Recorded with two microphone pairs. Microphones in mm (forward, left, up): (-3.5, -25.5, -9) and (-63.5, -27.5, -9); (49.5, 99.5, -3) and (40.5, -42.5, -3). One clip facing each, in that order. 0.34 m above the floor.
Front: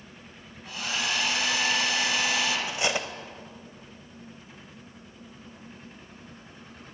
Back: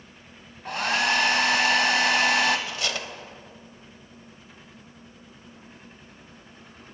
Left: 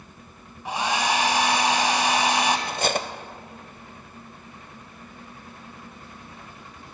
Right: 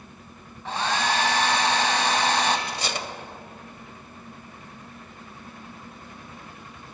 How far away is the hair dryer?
About 1.2 m.